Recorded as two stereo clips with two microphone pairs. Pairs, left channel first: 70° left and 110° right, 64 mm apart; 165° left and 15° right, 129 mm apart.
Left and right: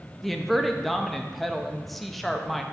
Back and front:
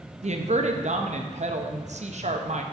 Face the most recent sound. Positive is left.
turn(degrees=-15)